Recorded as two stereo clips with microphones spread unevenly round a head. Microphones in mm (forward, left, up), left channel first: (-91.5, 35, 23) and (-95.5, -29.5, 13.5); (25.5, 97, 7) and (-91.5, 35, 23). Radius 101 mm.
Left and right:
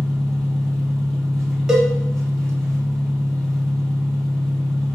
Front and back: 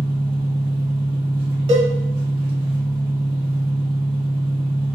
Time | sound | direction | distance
0.0 | an engine running | 165° left | 2 m
1.7 | a cowbell | straight behind | 1.4 m